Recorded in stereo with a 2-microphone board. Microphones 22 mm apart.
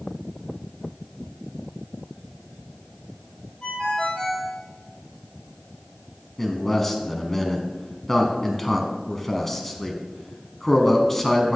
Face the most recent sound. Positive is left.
turn(degrees=15)  # may be behind; listen again after turning